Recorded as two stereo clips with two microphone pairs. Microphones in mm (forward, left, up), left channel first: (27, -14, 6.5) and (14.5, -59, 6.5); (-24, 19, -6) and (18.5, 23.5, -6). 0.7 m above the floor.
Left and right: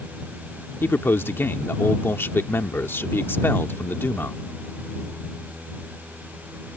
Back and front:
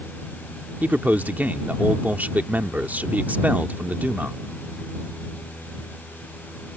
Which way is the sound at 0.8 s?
50° left.